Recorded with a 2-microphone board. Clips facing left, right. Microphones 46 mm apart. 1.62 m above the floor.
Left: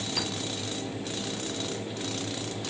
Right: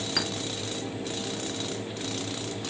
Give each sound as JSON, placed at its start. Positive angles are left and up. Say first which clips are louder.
{"t": 0.2, "sound": "a clink", "louder": "right 3 dB", "side_deg": -60, "distance_m": 1.7}